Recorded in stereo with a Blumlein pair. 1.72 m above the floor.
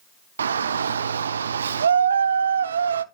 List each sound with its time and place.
0.4 s a shout: 70° right, 0.6 m